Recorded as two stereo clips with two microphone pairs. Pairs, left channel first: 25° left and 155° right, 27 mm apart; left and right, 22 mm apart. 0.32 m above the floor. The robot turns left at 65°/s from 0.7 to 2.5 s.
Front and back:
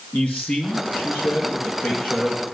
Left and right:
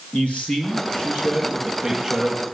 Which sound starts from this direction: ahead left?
A man speaking, at 0.1 s.